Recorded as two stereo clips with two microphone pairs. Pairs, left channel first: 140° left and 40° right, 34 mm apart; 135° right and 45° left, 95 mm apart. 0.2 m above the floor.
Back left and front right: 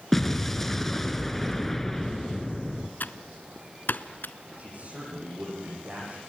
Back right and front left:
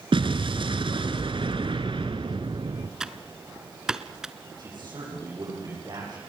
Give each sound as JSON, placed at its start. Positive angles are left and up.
{"t": 0.1, "sound": "an explosion", "azimuth_deg": 60, "distance_m": 1.5}
{"t": 3.0, "sound": "typing on a keyboard", "azimuth_deg": 125, "distance_m": 0.8}
{"t": 4.6, "sound": "a man speaking", "azimuth_deg": -5, "distance_m": 9.5}